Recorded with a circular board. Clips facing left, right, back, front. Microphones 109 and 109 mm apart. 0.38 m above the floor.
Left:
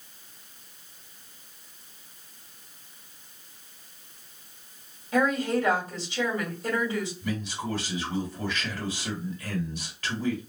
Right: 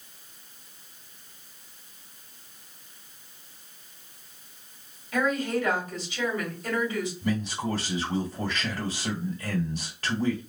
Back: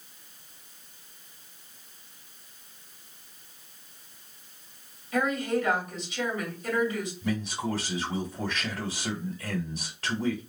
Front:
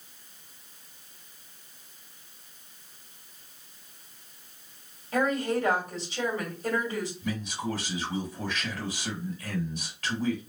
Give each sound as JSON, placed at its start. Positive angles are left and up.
{"t": 5.1, "sound": "a woman speaking", "azimuth_deg": 45, "distance_m": 2.0}
{"t": 7.2, "sound": "a man speaking", "azimuth_deg": -135, "distance_m": 1.3}